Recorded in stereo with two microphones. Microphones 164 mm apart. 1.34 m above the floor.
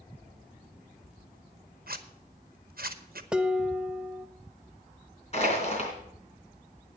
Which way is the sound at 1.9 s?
65° right (ahead or behind).